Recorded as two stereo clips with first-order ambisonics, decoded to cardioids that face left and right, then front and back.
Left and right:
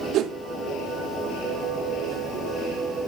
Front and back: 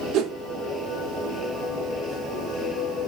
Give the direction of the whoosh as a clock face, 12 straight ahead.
5 o'clock.